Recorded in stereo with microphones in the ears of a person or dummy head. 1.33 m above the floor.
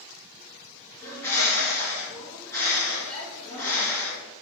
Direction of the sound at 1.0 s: 15° left (ahead or behind).